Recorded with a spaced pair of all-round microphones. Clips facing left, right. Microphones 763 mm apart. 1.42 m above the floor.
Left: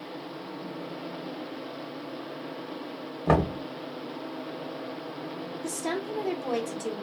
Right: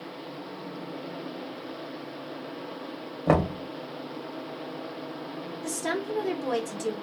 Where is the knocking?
10° right (ahead or behind), 0.5 m.